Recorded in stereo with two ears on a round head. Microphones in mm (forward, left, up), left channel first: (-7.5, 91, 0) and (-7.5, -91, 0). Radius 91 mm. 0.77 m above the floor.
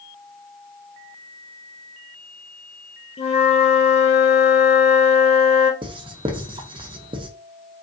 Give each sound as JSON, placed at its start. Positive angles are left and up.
{"t": 3.2, "sound": "a flute", "side_deg": 30, "distance_m": 0.7}
{"t": 5.8, "sound": "writing", "side_deg": -25, "distance_m": 0.7}